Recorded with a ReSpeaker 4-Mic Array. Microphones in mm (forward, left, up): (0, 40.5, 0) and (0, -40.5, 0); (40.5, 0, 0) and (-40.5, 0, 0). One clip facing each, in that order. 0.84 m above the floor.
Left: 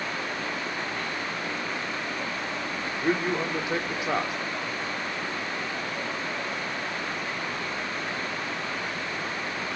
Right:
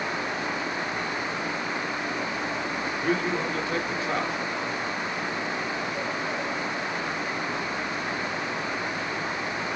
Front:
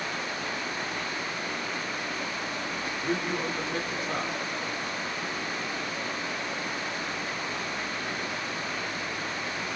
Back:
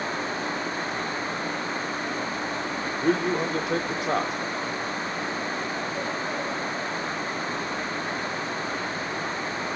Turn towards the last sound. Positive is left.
turn(degrees=165)